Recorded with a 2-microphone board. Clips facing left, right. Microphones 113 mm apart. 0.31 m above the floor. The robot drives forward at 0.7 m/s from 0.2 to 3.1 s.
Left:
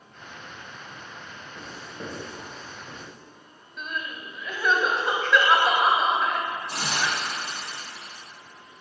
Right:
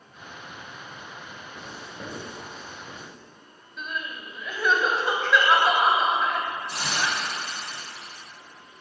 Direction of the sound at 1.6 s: Centre (ahead or behind).